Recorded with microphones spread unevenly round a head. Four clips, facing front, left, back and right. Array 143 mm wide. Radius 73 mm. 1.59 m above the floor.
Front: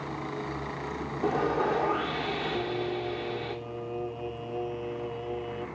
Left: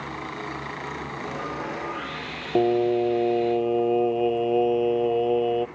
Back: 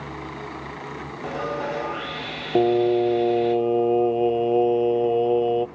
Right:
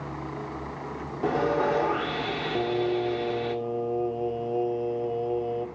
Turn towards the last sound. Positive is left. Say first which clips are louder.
# left 7 dB, back 13 dB
turn(degrees=155)